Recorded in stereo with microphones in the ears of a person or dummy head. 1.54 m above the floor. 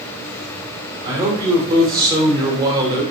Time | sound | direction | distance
1.0 | a man speaking | 25° right (ahead or behind) | 1.2 m